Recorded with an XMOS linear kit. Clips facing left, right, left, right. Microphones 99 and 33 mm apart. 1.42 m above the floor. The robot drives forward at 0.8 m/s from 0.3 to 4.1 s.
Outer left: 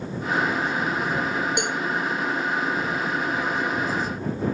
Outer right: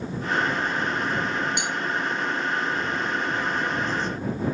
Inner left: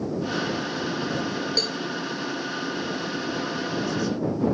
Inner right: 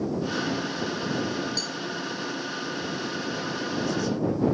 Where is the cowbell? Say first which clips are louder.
Outer left 2 dB, inner left 5 dB; 55° left (ahead or behind); by 1.8 s 50° left (ahead or behind).